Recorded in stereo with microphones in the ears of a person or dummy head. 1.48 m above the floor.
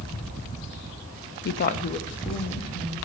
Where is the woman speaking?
55° left (ahead or behind), 0.5 m; by 3.0 s 10° left (ahead or behind), 1.4 m.